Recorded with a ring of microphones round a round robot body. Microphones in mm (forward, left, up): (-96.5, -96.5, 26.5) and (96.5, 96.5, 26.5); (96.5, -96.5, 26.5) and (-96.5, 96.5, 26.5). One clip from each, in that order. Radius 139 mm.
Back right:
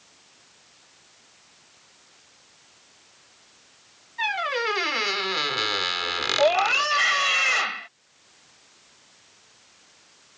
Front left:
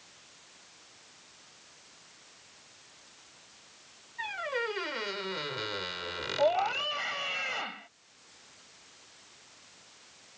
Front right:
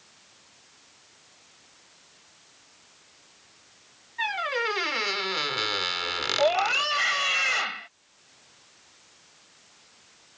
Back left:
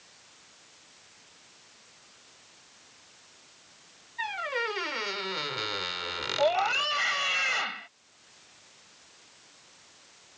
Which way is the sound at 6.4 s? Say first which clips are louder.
Back right 7 dB, front right 2 dB; 120° right.